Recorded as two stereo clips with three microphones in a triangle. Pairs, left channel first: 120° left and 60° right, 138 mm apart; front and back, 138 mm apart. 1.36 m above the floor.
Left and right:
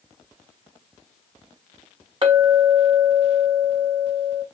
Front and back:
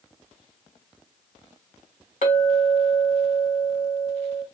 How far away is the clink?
About 1.5 m.